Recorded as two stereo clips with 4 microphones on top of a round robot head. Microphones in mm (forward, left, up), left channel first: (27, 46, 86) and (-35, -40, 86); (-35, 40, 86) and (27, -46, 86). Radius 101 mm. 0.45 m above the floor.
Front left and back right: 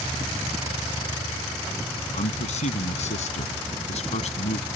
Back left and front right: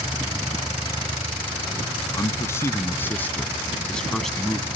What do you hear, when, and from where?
2.1 s a man speaking: 65° left; by 4.7 s 35° left